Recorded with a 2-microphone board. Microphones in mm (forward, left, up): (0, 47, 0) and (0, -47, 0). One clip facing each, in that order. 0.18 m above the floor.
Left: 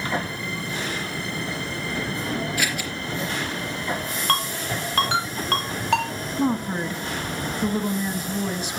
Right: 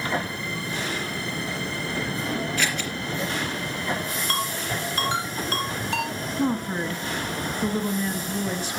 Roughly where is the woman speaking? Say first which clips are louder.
Left 2 dB; centre.